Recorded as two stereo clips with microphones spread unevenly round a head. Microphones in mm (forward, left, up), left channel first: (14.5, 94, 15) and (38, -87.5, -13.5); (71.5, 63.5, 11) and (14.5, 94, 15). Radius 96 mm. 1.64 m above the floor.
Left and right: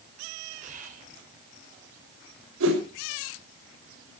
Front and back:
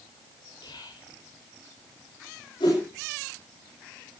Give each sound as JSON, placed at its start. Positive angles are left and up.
{"t": 0.6, "sound": "whispering", "azimuth_deg": -35, "distance_m": 7.0}
{"t": 2.6, "sound": "a whoosh", "azimuth_deg": -75, "distance_m": 6.5}